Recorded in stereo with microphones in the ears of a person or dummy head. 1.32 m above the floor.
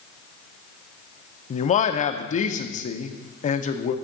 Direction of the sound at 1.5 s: 35° left (ahead or behind).